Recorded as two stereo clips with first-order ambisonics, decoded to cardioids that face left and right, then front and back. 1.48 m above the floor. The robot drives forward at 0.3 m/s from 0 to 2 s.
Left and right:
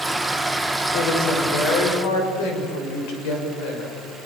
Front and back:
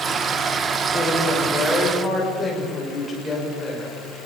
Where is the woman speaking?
80° left, 6.5 m; by 4.0 s 85° left, 6 m.